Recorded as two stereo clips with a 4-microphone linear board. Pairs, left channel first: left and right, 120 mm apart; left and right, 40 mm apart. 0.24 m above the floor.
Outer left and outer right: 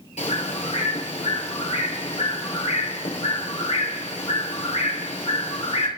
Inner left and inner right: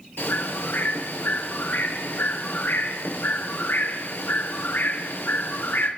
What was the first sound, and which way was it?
A bird, 75° left (ahead or behind).